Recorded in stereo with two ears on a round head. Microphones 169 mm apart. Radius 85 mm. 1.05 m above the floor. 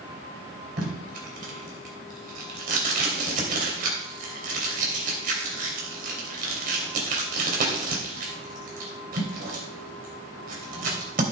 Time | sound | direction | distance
0.8 | tape being pulled | 45° right (ahead or behind) | 3 m